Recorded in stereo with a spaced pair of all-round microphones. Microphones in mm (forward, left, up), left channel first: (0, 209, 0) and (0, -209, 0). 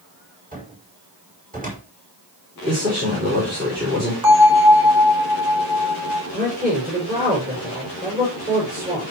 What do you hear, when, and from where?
0.5 s a cupboard door: 20° right (ahead or behind), 5 m
2.7 s a man speaking: 25° right (ahead or behind), 5.5 m
4.2 s a bell: 55° right (ahead or behind), 4.5 m
6.3 s a man speaking: 20° right (ahead or behind), 6.5 m